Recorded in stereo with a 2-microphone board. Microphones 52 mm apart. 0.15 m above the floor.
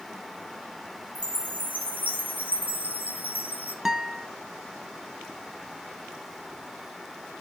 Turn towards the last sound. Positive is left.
turn(degrees=-5)  # may be behind; listen again after turning